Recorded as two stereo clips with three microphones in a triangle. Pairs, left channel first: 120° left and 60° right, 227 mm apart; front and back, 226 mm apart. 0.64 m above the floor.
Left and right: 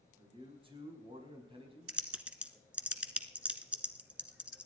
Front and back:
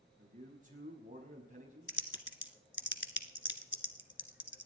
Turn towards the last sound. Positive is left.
turn(degrees=25)